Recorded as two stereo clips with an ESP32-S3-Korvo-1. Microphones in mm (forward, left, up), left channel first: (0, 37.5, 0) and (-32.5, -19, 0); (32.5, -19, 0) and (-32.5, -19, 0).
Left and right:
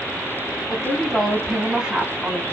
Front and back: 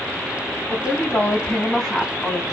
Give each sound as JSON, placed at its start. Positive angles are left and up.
{"t": 0.7, "sound": "a woman speaking", "azimuth_deg": 0, "distance_m": 1.2}